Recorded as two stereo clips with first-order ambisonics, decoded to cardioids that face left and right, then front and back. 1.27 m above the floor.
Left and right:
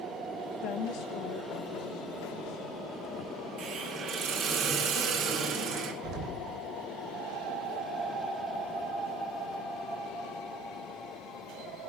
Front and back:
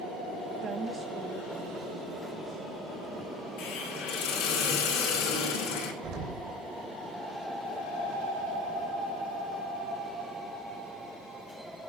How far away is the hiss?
About 4 m.